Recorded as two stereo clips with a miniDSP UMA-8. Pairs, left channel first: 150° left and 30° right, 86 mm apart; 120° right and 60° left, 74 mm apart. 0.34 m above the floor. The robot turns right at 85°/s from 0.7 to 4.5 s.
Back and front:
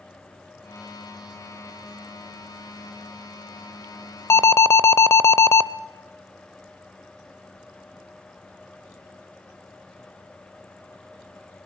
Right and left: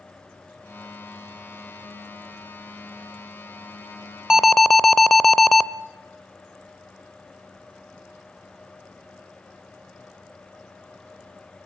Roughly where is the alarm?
Behind left.